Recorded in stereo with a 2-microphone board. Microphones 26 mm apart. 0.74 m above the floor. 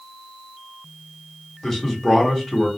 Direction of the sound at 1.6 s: 10° left (ahead or behind).